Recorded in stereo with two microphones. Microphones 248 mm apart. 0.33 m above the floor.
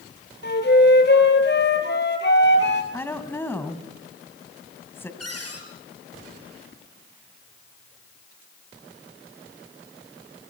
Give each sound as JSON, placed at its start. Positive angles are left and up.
{"t": 0.4, "sound": "a flute", "side_deg": 45, "distance_m": 2.5}
{"t": 2.9, "sound": "a woman speaking", "side_deg": 10, "distance_m": 2.0}
{"t": 5.2, "sound": "a cupboard door", "side_deg": 75, "distance_m": 4.5}